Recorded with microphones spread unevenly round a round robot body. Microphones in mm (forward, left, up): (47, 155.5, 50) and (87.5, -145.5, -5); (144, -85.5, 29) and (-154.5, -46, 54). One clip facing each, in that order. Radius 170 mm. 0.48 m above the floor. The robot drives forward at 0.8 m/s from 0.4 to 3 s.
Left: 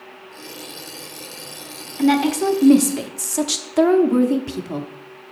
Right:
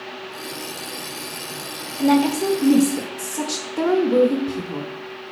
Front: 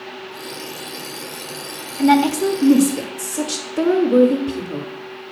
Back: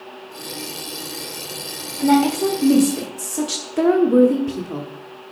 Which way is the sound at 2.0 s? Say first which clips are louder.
Even, front 1 dB; 30° left.